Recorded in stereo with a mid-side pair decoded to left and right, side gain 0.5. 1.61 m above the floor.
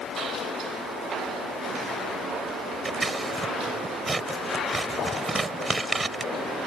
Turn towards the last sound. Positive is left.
turn(degrees=-20)